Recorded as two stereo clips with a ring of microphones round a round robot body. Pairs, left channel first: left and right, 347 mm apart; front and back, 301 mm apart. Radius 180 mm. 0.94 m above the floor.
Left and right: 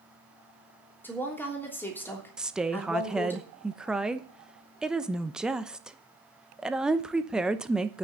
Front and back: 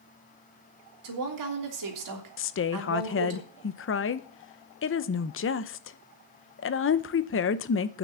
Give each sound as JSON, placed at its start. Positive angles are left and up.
{"t": 1.0, "sound": "a woman speaking", "azimuth_deg": 175, "distance_m": 3.0}
{"t": 2.4, "sound": "a woman speaking", "azimuth_deg": -5, "distance_m": 0.8}